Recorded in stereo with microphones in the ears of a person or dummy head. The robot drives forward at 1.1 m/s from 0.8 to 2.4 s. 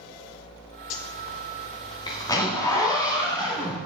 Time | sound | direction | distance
0.9 | a zipper | 45° left (ahead or behind) | 0.6 m